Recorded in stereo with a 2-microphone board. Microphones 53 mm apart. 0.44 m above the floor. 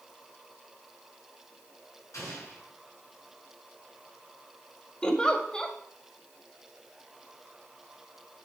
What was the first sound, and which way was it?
An explosion, 80° left.